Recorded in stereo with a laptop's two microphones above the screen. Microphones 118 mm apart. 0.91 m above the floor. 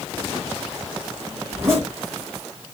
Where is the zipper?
20° right (ahead or behind), 1.8 m.